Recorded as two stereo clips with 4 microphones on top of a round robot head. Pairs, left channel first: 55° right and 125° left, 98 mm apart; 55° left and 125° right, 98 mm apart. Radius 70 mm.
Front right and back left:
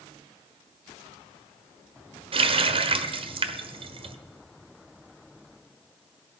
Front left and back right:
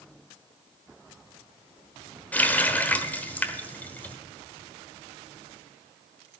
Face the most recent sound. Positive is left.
turn(degrees=130)